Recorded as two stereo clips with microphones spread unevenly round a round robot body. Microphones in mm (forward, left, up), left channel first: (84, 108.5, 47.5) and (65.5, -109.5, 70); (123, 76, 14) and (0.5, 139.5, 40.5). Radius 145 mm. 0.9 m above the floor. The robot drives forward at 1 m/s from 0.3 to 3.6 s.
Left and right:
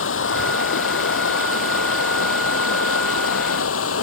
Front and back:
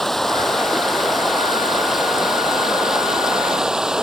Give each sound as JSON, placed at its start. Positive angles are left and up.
{"t": 0.0, "sound": "running water", "azimuth_deg": 60}